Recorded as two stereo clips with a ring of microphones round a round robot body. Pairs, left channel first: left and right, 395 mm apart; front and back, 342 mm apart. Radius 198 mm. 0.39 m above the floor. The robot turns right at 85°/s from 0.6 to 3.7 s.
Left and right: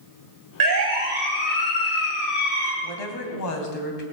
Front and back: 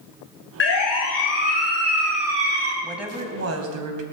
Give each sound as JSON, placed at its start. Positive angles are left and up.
{"t": 0.6, "sound": "a siren", "azimuth_deg": -60, "distance_m": 3.5}
{"t": 2.8, "sound": "a woman speaking", "azimuth_deg": 80, "distance_m": 3.0}